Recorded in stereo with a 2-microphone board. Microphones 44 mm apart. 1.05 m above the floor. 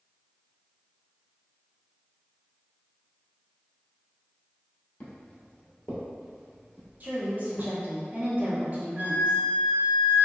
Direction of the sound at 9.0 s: 65° right (ahead or behind).